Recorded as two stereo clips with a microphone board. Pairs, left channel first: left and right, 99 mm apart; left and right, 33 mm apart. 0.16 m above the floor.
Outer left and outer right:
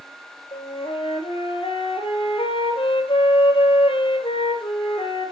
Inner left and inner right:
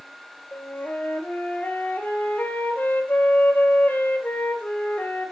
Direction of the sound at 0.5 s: 65° left (ahead or behind).